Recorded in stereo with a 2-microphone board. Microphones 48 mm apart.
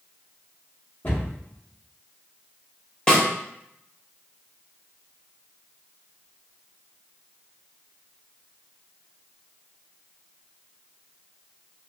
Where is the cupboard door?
50° left (ahead or behind), 1.5 m.